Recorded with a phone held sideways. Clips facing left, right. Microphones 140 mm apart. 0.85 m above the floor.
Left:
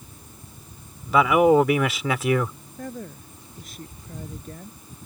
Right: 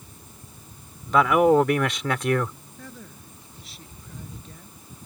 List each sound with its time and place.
1.1 s a man speaking: 5° left (ahead or behind)
2.8 s a woman speaking: 45° left (ahead or behind)